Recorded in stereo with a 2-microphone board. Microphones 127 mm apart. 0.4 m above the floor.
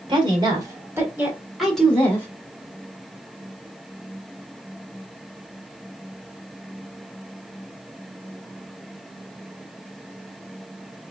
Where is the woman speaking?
40° right (ahead or behind), 1.6 m; by 2.3 s 15° left (ahead or behind), 1.4 m.